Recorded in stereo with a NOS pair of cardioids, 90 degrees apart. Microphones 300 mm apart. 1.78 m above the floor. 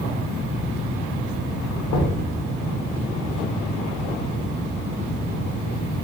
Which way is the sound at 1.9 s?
65° left.